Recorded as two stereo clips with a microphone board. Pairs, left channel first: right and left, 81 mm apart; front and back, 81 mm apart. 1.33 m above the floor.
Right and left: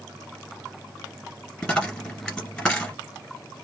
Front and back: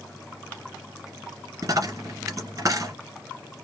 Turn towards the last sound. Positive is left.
turn(degrees=-165)